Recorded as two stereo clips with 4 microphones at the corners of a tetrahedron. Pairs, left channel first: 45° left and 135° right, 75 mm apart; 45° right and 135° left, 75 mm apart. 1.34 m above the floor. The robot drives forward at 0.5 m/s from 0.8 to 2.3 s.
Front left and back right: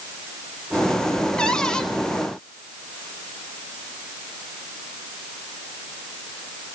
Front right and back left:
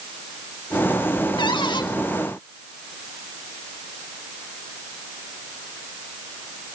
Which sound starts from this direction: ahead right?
A cupboard door, at 1.4 s.